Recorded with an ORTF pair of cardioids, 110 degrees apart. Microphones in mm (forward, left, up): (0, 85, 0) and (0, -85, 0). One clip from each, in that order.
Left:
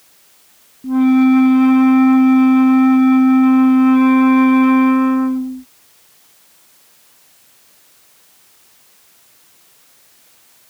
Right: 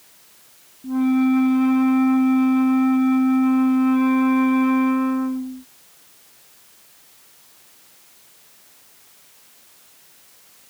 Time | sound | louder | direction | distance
0.8 | a flute | left 7 dB | 35° left | ?